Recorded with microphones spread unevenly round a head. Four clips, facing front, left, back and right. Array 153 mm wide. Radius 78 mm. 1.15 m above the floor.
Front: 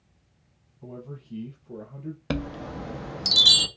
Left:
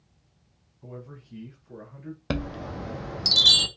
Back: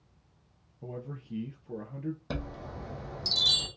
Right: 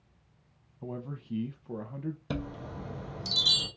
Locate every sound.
0.8 s a man speaking: 110° right, 0.6 m
2.3 s a chime: 50° left, 0.6 m